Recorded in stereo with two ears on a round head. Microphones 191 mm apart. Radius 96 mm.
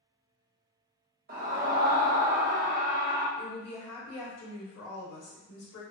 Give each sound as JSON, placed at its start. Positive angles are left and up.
{"t": 1.3, "sound": "a scream", "side_deg": -45, "distance_m": 0.7}
{"t": 3.4, "sound": "a woman speaking", "side_deg": 80, "distance_m": 1.0}